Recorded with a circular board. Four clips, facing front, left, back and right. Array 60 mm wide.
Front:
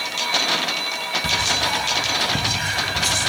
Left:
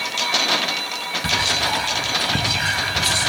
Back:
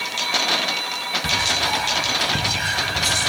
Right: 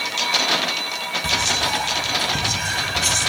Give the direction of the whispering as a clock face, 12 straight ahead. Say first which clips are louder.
Left 1 dB, back 1 dB; 9 o'clock.